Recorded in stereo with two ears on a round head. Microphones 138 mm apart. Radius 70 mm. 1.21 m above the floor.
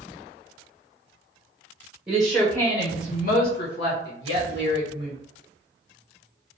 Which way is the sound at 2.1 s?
15° right (ahead or behind).